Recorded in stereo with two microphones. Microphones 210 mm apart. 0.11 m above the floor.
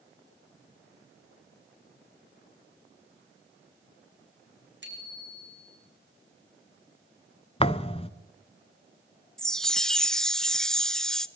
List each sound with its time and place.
4.8 s a bicycle bell: 60° right (ahead or behind), 5 m
7.6 s a thud: 30° left (ahead or behind), 0.8 m
9.4 s a chime: 5° left (ahead or behind), 0.7 m